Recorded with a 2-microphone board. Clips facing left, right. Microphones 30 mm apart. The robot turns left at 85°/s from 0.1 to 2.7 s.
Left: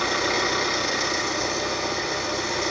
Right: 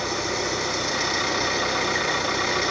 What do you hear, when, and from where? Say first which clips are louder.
0.0 s an engine running: left 3 dB; 75° left, 9.5 m; by 2.7 s 145° right, 9.5 m